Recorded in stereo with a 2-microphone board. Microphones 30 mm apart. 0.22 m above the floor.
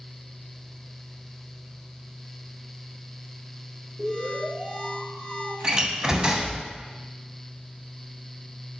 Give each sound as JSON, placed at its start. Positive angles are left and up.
{"t": 4.0, "sound": "an alarm", "side_deg": -20, "distance_m": 3.5}
{"t": 5.6, "sound": "a door slam", "side_deg": -30, "distance_m": 0.9}